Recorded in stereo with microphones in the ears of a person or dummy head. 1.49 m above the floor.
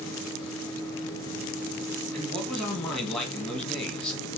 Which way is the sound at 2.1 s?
5° left (ahead or behind).